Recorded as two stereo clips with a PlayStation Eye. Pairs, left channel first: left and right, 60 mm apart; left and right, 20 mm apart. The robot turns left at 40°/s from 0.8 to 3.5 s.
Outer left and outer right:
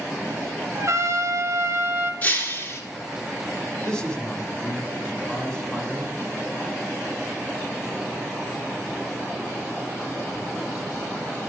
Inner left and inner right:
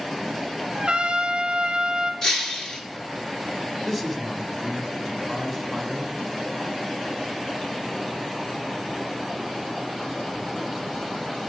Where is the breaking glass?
30° left (ahead or behind), 1.8 m; by 2.8 s 50° left (ahead or behind), 1.8 m.